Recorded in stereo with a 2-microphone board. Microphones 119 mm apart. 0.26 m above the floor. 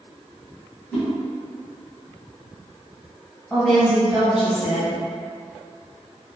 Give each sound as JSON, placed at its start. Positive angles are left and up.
{"t": 0.9, "sound": "a whoosh", "side_deg": 15, "distance_m": 1.4}
{"t": 3.5, "sound": "a woman speaking", "side_deg": -5, "distance_m": 1.2}